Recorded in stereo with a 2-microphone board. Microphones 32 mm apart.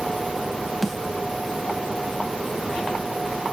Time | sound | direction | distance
0.8 | a snare drum | 5° left (ahead or behind) | 1.4 m